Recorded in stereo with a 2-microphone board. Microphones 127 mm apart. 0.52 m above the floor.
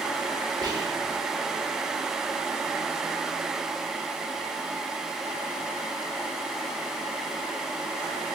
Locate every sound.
0.6 s whispering: 30° right (ahead or behind), 1.0 m